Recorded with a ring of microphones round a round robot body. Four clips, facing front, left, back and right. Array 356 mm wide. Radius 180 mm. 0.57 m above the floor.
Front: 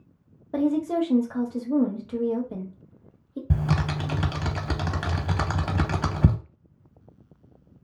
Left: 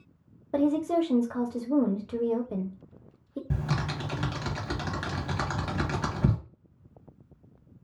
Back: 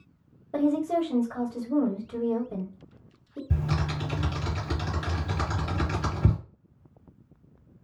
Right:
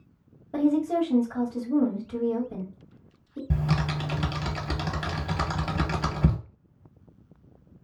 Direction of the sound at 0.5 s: 55° left.